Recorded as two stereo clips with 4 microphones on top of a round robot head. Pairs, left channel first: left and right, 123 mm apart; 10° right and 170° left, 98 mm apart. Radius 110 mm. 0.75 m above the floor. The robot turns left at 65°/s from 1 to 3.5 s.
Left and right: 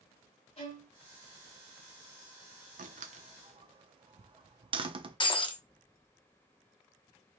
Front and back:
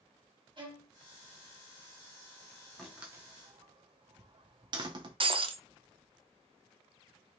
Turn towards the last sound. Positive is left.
turn(degrees=140)